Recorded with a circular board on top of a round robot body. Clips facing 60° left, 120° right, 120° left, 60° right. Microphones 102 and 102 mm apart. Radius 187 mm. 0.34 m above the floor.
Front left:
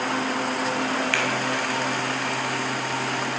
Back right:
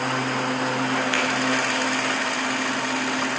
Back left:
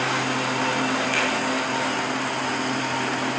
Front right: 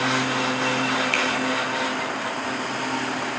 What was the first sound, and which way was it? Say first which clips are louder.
A finger snap: back right 1 dB, even; 50° right.